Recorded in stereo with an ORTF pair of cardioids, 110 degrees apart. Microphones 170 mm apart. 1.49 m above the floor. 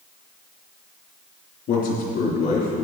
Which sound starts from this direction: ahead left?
A man speaking, at 1.7 s.